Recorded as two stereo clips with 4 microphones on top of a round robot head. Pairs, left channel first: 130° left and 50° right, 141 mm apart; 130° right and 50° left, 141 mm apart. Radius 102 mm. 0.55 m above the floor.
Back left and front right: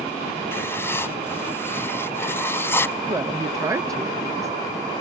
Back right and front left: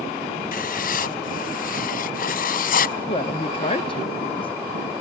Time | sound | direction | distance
0.5 | writing | 155° right | 0.6 m
3.1 | a woman speaking | 110° right | 1.0 m